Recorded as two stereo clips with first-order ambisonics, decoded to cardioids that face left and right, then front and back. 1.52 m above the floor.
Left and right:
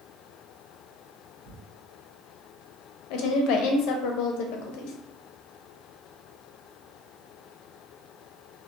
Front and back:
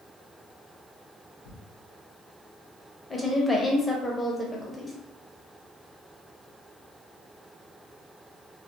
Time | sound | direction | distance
1.4 | tearing paper | 10° right | 0.8 m
3.1 | a woman speaking | 80° left | 0.5 m